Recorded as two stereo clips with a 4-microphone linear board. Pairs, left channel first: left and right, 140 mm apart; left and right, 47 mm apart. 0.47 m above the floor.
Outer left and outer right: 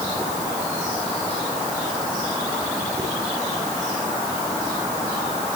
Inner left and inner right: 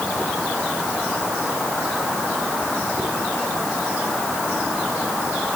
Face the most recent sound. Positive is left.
No sound to turn to.